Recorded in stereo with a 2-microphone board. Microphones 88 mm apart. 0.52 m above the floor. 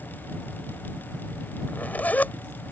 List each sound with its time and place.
1.7 s a zipper: 20° left (ahead or behind)